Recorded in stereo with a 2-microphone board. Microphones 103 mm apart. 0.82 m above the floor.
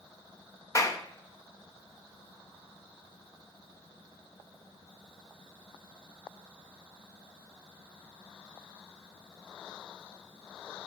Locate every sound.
0.8 s a clap: 30° left (ahead or behind), 0.8 m